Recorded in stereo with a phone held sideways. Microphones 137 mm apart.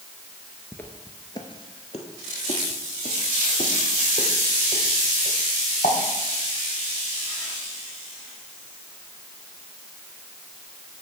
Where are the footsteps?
10° left (ahead or behind), 0.9 m; by 5.9 s 55° left (ahead or behind), 3 m.